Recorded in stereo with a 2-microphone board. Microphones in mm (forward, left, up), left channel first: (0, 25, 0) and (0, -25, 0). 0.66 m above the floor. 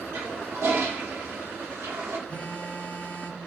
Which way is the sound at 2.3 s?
30° left (ahead or behind).